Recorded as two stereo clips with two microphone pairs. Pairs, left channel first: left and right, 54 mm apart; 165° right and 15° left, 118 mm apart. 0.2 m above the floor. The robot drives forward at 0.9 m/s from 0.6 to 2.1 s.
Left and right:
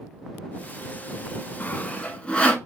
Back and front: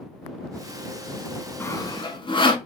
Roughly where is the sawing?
Behind left.